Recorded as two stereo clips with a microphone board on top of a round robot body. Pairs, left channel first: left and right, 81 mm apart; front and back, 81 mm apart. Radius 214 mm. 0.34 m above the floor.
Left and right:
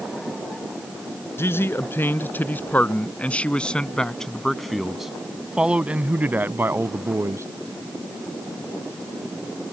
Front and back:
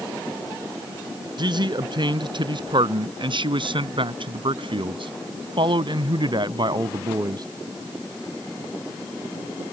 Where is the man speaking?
150° left; by 7.5 s 145° right.